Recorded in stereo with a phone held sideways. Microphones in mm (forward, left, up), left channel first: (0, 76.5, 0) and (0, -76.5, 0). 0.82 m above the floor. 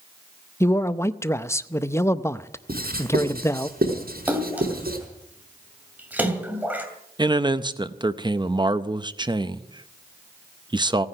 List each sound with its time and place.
0.6 s a man speaking: 20° left (ahead or behind), 0.6 m
2.7 s writing: 85° right, 5 m
4.3 s a splash: 10° right (ahead or behind), 2.5 m
7.2 s a man speaking: 30° right (ahead or behind), 0.7 m